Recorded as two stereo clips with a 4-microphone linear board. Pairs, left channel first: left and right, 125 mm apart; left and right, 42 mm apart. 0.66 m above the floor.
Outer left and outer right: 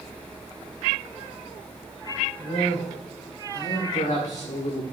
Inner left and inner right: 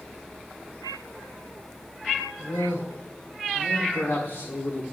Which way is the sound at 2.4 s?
65° left (ahead or behind).